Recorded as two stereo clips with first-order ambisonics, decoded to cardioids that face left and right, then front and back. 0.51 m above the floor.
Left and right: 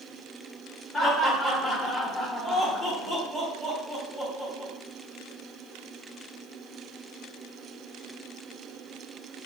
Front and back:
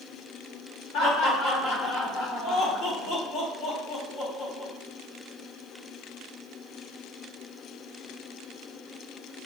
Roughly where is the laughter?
Ahead.